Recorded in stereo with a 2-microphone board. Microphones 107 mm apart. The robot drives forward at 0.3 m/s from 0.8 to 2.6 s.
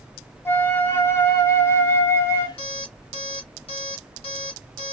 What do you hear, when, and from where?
0.5 s a flute: 20° left (ahead or behind), 0.8 m
2.6 s an alarm clock: 65° left (ahead or behind), 1.9 m